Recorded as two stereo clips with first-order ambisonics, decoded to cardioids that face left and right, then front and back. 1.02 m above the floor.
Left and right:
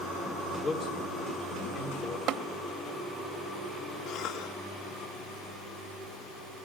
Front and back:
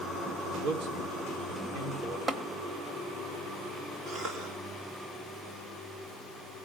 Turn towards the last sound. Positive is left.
turn(degrees=130)